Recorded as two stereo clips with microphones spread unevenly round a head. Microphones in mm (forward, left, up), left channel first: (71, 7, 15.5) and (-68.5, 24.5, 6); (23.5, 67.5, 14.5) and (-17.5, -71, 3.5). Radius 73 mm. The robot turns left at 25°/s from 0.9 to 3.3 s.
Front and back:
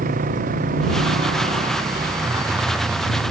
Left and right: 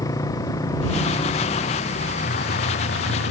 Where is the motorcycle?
140° left; by 3.3 s 80° left.